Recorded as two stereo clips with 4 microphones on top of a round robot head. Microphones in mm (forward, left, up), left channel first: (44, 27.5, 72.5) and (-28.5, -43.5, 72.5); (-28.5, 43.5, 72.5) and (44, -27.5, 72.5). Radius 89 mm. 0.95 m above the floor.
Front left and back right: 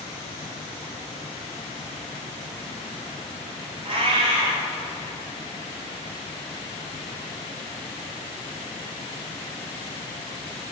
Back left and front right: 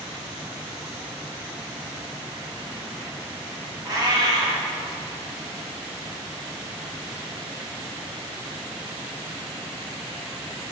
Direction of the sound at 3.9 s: 100° right.